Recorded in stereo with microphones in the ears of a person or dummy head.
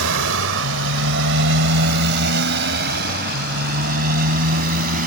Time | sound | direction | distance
0.0 | a motorcycle | 75° right (ahead or behind) | ?